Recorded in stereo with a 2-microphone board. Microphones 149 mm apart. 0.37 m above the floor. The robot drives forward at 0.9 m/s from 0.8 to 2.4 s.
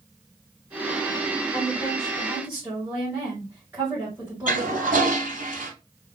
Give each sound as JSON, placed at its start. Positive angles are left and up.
{"t": 1.5, "sound": "a woman speaking", "side_deg": -20, "distance_m": 1.5}
{"t": 4.5, "sound": "a toilet flushing", "side_deg": -65, "distance_m": 2.5}